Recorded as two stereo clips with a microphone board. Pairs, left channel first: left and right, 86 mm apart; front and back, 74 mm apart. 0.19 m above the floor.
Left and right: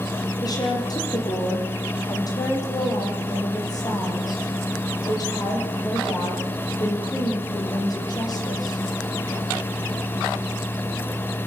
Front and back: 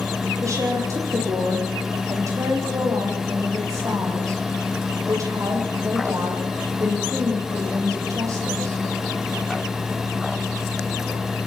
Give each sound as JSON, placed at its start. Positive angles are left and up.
{"t": 0.4, "sound": "a woman speaking", "azimuth_deg": 130, "distance_m": 8.5}